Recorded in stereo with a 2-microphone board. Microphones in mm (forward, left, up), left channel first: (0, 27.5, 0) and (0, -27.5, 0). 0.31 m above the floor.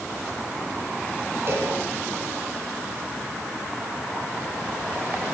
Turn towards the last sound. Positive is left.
turn(degrees=-45)  # may be behind; listen again after turning